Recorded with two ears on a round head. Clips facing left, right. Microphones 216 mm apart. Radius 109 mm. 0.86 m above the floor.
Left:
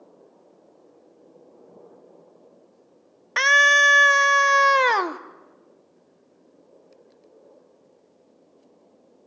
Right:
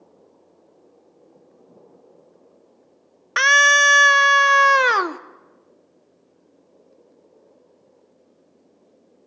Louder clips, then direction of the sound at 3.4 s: Right 1 dB; 10° right (ahead or behind).